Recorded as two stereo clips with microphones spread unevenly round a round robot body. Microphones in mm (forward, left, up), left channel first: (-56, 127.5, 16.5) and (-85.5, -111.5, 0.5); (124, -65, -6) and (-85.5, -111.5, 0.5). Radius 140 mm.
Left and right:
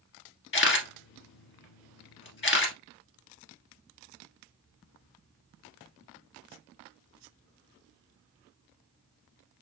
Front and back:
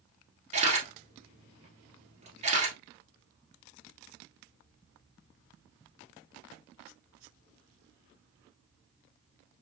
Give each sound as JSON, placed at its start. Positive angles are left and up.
{"t": 0.5, "sound": "a camera shutter", "azimuth_deg": 125, "distance_m": 1.4}